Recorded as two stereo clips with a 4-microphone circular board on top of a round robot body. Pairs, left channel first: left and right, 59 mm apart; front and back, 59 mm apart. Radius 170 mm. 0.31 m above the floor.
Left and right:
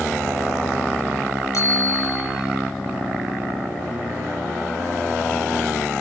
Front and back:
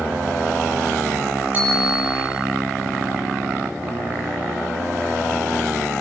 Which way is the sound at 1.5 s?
115° left.